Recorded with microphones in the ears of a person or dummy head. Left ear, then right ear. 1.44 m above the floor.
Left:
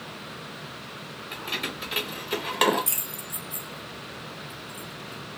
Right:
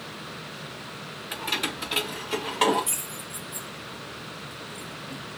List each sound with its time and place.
1.3 s keys jangling: 20° right (ahead or behind), 1.2 m; by 5.2 s 70° left (ahead or behind), 2 m